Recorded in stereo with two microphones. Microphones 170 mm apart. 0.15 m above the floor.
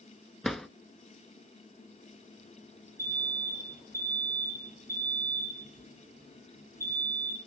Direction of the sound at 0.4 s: Centre (ahead or behind).